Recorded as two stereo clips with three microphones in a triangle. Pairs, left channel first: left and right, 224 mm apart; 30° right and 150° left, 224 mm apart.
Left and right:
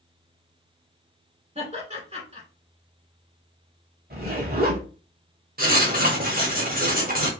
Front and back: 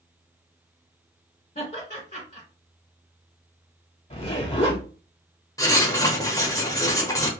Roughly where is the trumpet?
No trumpet in this recording.